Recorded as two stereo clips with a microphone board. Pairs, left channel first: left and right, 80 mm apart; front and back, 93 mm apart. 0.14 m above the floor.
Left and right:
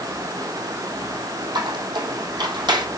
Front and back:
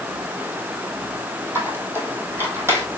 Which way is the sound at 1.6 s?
115° right.